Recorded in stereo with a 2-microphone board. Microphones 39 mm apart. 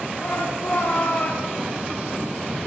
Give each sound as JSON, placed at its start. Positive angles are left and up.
{"t": 0.2, "sound": "a shout", "side_deg": 75, "distance_m": 7.0}